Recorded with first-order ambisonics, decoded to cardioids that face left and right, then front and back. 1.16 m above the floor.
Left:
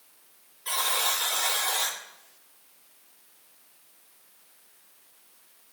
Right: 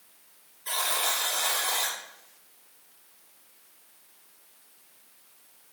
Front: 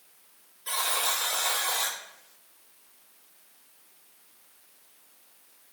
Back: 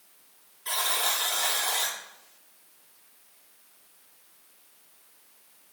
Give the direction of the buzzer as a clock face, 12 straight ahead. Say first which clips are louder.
Left 1 dB, back 1 dB; 7 o'clock.